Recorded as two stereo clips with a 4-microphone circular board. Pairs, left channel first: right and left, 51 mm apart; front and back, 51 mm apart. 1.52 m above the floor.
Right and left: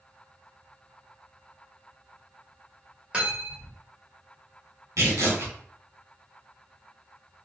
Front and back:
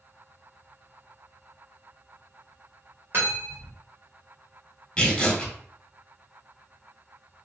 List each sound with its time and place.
3.1 s cutlery clinking: 155° left, 1.3 m
5.0 s tearing paper: 70° left, 1.2 m